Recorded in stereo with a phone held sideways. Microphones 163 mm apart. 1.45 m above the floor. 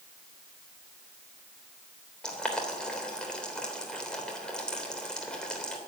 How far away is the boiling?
About 3 m.